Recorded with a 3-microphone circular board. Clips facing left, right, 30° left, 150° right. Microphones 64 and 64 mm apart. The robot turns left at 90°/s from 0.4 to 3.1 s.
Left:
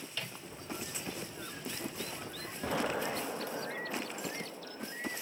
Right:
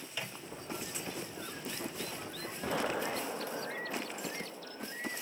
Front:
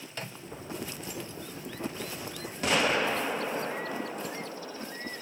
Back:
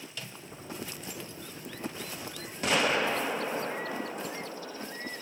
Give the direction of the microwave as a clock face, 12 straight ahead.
1 o'clock.